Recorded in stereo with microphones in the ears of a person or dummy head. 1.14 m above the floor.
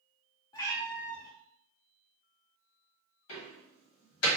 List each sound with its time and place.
0.5 s a cat meowing: 20° left (ahead or behind), 0.7 m
3.3 s a door slam: 75° left (ahead or behind), 1.3 m